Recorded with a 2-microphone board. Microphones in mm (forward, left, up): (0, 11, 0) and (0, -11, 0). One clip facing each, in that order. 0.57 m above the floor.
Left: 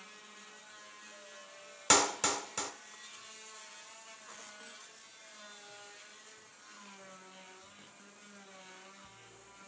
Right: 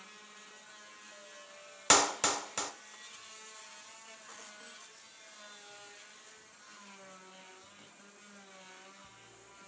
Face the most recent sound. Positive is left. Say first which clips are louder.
# right 1 dB
turn(degrees=-10)  # may be behind; listen again after turning